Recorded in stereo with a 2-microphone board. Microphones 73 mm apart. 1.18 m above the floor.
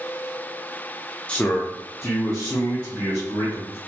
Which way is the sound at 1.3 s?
15° left (ahead or behind).